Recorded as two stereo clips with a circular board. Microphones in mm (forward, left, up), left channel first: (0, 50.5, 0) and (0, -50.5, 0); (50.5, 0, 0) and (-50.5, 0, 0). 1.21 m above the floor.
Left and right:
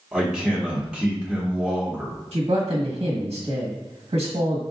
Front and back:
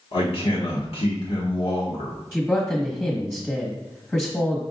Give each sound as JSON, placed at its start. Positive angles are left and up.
{"t": 0.1, "sound": "a man speaking", "azimuth_deg": -5, "distance_m": 1.4}
{"t": 2.3, "sound": "a man speaking", "azimuth_deg": -70, "distance_m": 1.5}